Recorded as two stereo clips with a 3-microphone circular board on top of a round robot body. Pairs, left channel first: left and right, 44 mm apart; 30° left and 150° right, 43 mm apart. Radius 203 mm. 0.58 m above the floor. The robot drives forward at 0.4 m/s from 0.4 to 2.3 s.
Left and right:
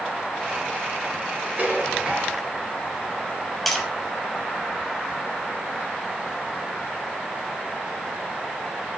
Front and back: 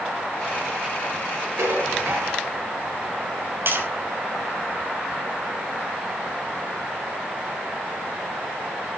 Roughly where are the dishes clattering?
Behind right.